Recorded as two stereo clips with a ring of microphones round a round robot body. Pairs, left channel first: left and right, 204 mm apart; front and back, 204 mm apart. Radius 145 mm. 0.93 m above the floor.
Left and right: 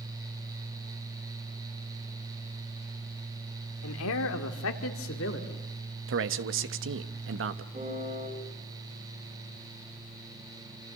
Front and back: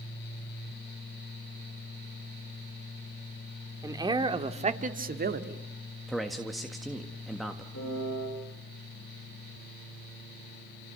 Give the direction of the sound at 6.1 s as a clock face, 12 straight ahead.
3 o'clock.